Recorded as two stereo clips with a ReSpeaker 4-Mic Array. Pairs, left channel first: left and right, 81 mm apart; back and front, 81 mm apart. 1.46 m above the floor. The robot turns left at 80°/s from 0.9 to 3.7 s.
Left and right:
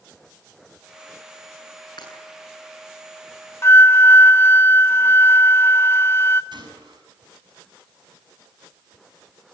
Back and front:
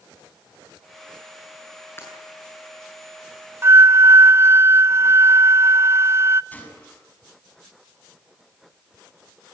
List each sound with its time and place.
2.0 s breaking glass: 120° left, 8 m; by 2.1 s 110° left, 8 m
3.6 s a flute: 50° left, 0.6 m; by 6.4 s 45° left, 0.6 m
6.5 s a gunshot: 110° right, 6 m